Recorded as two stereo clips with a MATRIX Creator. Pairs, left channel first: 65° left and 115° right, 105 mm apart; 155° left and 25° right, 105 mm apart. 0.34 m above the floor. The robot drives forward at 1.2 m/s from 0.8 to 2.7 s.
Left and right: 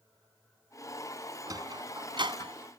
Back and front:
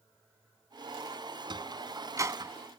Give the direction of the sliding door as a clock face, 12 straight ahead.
2 o'clock.